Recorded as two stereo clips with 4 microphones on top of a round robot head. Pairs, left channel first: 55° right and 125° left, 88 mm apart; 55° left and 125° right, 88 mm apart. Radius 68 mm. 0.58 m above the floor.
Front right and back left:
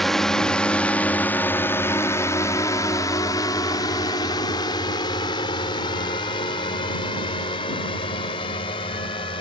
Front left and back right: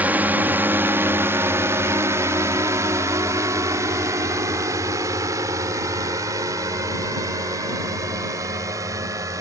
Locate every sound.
0.0 s a drone: 140° right; by 9.4 s 70° right